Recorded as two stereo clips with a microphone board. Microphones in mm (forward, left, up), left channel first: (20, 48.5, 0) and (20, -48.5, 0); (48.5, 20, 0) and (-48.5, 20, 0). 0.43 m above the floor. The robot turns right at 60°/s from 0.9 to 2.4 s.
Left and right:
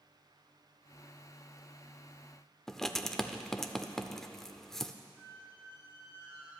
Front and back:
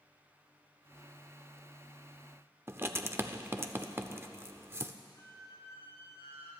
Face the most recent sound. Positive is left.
turn(degrees=-60)